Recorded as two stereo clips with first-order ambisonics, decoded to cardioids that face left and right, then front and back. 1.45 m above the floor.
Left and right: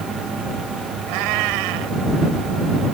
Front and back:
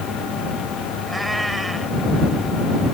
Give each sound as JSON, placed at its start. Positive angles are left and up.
{"t": 1.1, "sound": "a cat meowing", "azimuth_deg": -95}